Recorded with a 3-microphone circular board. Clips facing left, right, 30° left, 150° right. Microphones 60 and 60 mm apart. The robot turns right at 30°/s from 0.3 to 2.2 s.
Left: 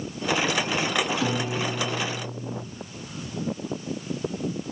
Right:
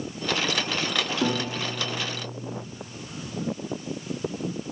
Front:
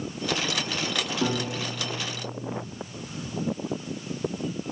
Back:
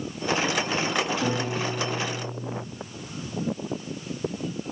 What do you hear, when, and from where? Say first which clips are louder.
1.2 s a piano: even, back 1 dB; 10° right, 5.5 m; by 2.6 s 20° left, 5.5 m